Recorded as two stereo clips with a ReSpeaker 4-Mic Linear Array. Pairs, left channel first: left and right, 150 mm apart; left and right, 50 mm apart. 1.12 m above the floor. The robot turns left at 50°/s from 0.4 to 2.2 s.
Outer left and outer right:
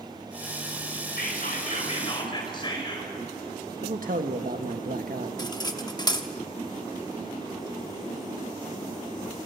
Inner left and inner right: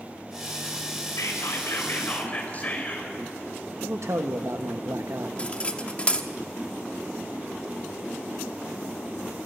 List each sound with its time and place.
1.2 s whispering: 85° left, 4.5 m; by 3.1 s 30° left, 4.5 m
3.8 s a man speaking: 70° right (ahead or behind), 1.4 m
5.4 s cutlery clinking: 25° left (ahead or behind), 1.1 m